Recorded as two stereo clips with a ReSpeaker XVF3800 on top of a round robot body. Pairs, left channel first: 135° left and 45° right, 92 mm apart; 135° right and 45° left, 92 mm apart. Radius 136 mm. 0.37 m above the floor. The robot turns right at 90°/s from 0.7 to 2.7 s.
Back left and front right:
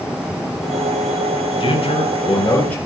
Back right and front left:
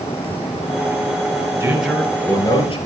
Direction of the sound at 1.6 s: 110° left.